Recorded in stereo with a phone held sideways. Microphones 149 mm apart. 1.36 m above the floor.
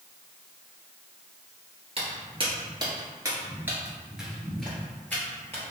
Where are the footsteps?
40° right (ahead or behind), 1.7 m; by 5.6 s 15° left (ahead or behind), 1.9 m.